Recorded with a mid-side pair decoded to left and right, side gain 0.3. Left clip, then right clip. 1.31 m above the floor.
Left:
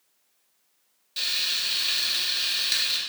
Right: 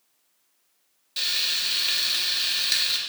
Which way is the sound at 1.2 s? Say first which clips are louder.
Right 1 dB; 25° right.